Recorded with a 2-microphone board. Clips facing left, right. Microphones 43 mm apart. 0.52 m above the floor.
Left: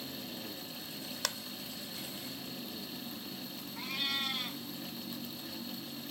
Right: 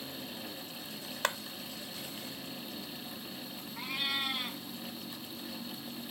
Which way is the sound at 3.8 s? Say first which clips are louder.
Right 1 dB; 10° right (ahead or behind).